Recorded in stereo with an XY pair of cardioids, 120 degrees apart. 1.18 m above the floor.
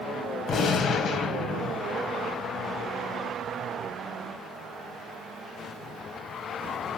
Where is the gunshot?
55° left, 2.5 m.